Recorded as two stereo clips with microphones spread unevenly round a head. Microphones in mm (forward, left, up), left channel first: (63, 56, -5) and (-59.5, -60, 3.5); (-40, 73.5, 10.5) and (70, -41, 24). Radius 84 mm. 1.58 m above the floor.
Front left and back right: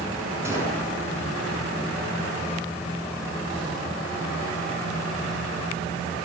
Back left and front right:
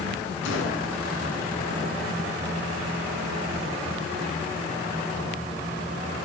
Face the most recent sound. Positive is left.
turn(degrees=150)